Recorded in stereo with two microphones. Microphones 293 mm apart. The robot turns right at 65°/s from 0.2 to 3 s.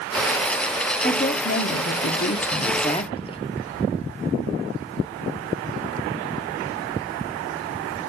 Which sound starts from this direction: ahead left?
A woman speaking, at 1.0 s.